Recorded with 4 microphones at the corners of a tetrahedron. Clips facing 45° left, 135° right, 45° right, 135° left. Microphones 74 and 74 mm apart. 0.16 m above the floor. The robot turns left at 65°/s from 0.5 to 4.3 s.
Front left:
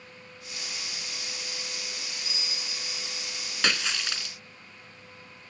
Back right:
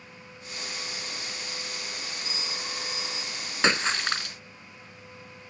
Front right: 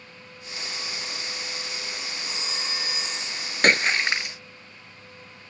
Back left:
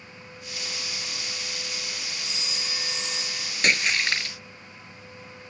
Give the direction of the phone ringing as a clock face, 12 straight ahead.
3 o'clock.